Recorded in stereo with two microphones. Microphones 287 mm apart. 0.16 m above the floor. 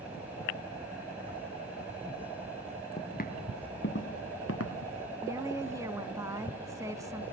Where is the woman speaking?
10° right (ahead or behind), 1.1 m.